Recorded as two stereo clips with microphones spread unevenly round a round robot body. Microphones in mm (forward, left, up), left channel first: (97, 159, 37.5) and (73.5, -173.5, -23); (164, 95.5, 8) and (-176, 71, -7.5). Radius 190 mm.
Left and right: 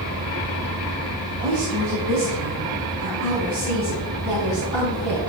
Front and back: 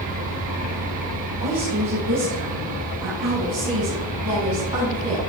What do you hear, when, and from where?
1.4 s a woman speaking: 135° right, 3 m; by 5.3 s 145° right, 5 m